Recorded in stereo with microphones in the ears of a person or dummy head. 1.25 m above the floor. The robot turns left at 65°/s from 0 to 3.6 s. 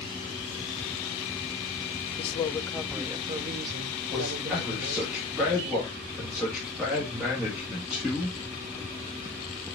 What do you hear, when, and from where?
2.2 s a woman speaking: 35° left, 0.7 m; by 5.1 s 55° right, 0.7 m
4.1 s a man speaking: 10° right (ahead or behind), 2 m